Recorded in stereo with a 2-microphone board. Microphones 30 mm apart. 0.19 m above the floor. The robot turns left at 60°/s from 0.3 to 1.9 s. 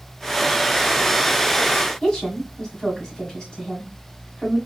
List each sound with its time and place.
2.0 s a woman speaking: 30° left (ahead or behind), 1.5 m